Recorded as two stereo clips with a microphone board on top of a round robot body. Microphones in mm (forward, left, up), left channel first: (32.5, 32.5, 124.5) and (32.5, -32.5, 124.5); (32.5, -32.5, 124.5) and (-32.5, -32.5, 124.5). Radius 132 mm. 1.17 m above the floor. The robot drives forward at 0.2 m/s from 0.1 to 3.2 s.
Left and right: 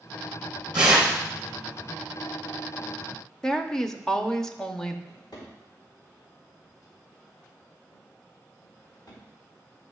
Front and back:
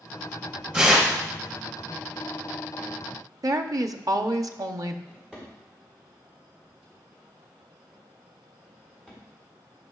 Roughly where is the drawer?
Left.